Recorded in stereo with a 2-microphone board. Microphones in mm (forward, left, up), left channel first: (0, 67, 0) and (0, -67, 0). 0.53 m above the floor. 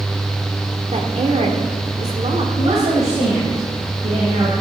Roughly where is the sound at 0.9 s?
Right.